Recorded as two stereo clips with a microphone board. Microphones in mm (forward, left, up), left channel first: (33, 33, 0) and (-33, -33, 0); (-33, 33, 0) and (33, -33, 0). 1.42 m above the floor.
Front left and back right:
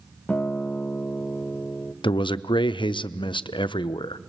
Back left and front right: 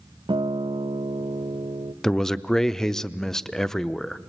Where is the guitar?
30° right, 0.5 m.